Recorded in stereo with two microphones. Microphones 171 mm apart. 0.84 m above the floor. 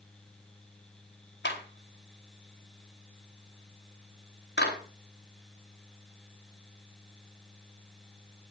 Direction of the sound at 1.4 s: 85° left.